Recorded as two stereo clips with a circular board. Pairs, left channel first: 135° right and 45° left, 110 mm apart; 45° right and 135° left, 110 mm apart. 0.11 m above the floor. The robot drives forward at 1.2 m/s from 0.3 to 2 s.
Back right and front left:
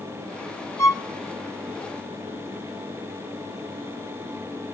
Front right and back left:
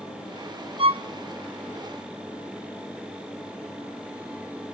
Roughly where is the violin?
Behind.